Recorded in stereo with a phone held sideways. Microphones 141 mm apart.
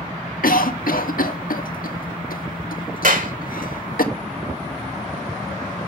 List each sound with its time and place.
0.4 s a cough: 85° left, 1.7 m
3.0 s a clap: 75° right (ahead or behind), 2.5 m